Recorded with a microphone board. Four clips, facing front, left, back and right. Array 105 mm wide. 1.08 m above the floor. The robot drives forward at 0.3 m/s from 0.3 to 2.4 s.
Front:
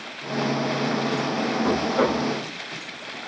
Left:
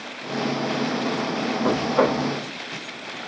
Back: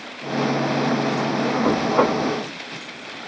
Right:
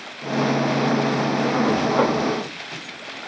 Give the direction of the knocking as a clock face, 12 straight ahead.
6 o'clock.